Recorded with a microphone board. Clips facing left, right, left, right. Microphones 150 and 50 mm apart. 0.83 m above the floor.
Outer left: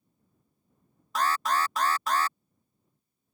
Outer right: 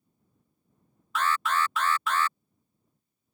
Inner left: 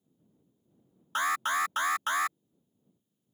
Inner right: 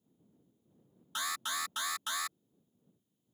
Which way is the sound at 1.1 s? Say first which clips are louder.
Even, inner left 9 dB; 40° left (ahead or behind).